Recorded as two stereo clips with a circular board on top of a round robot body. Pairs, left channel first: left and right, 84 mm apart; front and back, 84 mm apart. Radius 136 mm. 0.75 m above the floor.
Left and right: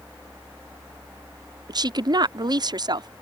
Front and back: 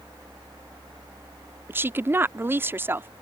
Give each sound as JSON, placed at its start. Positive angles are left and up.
{"t": 1.7, "sound": "a woman speaking", "azimuth_deg": -120}